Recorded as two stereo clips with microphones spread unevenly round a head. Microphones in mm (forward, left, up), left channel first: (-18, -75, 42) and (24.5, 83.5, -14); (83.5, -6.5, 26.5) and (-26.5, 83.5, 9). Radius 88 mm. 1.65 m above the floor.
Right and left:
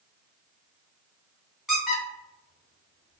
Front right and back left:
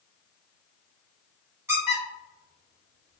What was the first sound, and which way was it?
A squeak, 150° right.